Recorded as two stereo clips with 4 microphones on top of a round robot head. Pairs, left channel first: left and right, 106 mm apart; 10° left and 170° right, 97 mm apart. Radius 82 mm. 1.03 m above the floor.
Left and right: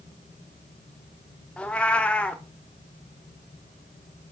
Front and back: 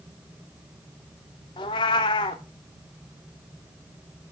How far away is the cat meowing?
About 0.7 m.